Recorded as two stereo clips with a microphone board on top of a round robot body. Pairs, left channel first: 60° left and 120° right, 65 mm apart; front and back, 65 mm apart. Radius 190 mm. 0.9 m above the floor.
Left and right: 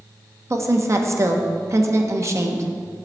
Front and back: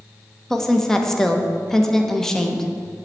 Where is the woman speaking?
85° right, 1.3 m.